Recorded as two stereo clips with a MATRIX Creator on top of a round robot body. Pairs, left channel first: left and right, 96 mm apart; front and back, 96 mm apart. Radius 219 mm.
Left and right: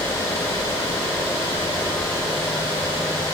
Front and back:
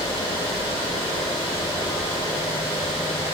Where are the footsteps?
I don't hear footsteps.